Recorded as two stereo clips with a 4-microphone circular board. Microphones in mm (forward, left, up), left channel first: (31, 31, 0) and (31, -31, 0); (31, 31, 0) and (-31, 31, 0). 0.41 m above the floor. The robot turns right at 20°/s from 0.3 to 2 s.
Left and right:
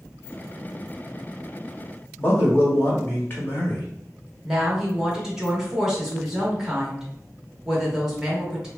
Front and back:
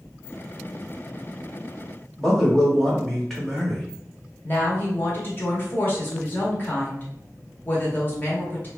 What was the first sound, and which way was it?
A man speaking, 80° left.